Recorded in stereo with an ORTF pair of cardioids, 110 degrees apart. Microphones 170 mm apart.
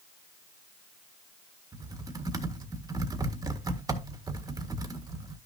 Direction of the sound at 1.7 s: 20° right.